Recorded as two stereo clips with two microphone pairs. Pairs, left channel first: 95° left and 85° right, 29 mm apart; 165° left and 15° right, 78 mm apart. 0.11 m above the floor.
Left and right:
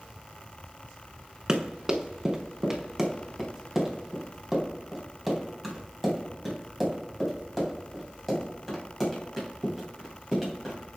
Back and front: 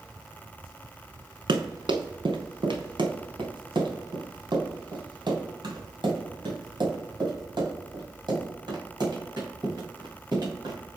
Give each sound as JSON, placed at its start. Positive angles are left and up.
{"t": 1.5, "sound": "running footsteps", "azimuth_deg": -15, "distance_m": 1.7}